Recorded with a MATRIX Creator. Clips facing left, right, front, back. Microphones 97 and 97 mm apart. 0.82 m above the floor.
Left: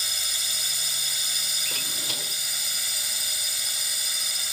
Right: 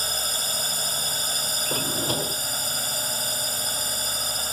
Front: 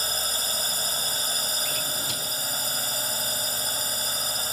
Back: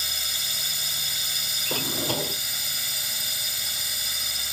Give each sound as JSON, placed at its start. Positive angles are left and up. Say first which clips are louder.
{"t": 0.0, "sound": "a drone", "louder": "right 7 dB, front 6 dB", "azimuth_deg": -45}
{"t": 1.6, "sound": "a drawer", "louder": "right 12 dB, back 4 dB", "azimuth_deg": -140}